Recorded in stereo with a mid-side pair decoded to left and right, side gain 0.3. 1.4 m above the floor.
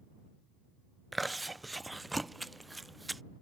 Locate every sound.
1.1 s chewing: 25° right